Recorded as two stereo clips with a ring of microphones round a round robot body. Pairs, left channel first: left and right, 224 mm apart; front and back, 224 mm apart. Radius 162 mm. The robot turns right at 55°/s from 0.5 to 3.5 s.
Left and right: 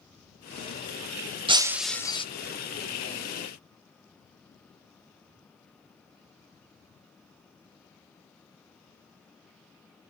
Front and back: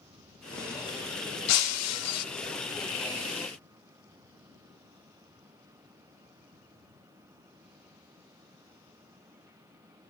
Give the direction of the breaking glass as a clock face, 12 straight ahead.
1 o'clock.